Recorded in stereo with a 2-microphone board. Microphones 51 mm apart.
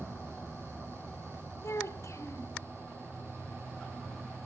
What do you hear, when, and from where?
1.6 s a child speaking: 70° left (ahead or behind), 2 m